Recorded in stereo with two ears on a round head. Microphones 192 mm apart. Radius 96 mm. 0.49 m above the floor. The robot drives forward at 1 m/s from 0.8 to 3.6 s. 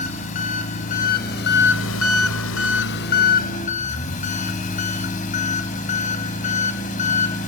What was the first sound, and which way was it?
An engine running, 35° left (ahead or behind).